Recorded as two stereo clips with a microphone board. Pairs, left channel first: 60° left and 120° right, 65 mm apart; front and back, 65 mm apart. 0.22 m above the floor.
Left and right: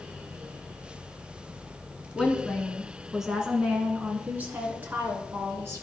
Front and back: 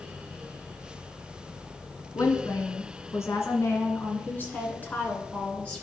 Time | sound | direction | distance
2.1 | a woman speaking | 15° right | 2 m